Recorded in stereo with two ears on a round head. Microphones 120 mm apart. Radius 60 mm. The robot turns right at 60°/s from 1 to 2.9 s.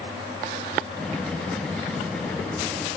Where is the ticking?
I don't hear ticking.